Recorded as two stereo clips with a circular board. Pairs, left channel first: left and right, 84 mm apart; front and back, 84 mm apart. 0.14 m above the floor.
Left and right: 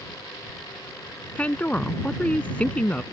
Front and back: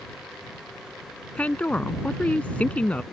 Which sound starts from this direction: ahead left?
A woman speaking, at 1.4 s.